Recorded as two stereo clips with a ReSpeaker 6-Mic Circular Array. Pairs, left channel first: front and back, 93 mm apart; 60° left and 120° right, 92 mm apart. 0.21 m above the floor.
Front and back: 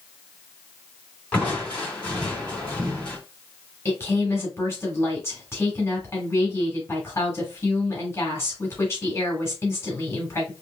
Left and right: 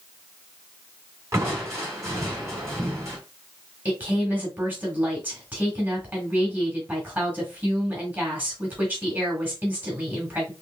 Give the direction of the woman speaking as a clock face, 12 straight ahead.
2 o'clock.